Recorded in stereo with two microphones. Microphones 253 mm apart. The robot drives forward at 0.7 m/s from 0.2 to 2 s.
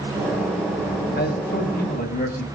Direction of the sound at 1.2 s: 40° left (ahead or behind).